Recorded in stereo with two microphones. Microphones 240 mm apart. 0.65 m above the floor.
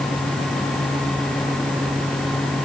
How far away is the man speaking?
No man speaking in this recording.